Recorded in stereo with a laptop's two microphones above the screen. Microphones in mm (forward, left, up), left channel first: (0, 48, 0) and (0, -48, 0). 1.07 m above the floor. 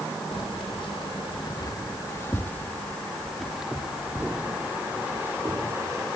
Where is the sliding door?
I don't hear a sliding door.